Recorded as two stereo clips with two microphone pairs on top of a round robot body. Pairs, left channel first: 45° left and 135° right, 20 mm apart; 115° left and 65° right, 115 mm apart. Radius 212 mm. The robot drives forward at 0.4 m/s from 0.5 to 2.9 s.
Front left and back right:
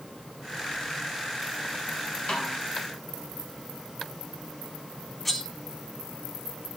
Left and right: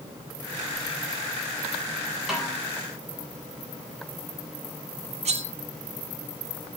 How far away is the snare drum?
About 4 m.